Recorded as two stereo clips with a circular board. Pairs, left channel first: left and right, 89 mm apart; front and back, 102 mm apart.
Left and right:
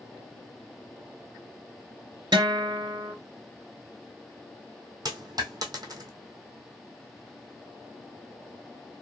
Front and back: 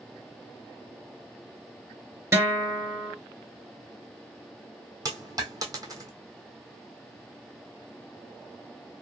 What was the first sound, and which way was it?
A guitar, 120° right.